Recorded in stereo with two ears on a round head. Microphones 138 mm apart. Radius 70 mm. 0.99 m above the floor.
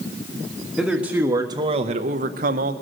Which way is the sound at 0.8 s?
Centre (ahead or behind).